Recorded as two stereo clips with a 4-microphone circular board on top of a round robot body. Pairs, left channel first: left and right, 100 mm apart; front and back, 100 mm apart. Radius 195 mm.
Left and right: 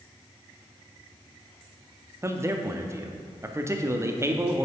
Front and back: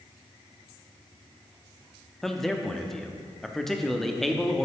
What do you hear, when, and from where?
2.2 s a man speaking: 85° right, 0.9 m